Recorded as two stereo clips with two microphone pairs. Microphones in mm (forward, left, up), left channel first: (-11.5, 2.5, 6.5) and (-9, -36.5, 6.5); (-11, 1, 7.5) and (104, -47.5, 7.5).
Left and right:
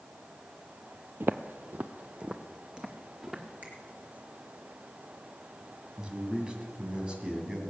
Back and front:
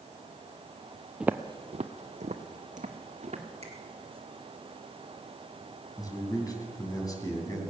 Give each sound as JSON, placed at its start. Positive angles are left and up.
{"t": 1.2, "sound": "footsteps", "azimuth_deg": -100, "distance_m": 0.5}
{"t": 3.6, "sound": "a finger snap", "azimuth_deg": -50, "distance_m": 2.5}
{"t": 6.0, "sound": "a man speaking", "azimuth_deg": -150, "distance_m": 2.5}